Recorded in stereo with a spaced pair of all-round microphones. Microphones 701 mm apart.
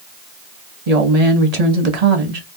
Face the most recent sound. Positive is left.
turn(degrees=-60)  # may be behind; listen again after turning